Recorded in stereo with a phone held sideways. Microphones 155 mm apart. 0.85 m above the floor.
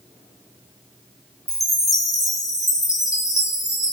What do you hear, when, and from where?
1.5 s a chime: 20° left (ahead or behind), 1.2 m